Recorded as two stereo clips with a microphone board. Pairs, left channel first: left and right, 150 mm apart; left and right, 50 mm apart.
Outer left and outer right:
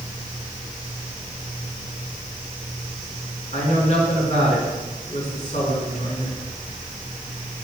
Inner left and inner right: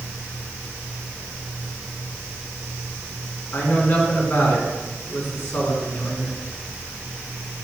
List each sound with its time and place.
3.5 s a woman speaking: 50° left (ahead or behind), 3.5 m